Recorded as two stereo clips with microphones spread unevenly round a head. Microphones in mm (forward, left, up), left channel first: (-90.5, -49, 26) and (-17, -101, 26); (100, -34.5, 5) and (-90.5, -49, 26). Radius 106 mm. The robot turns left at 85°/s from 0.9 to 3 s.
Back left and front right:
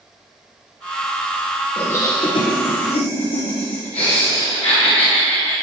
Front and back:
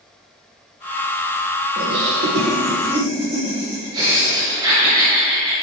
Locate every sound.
1.8 s laughter: 140° right, 1.2 m; by 5.5 s 115° left, 1.2 m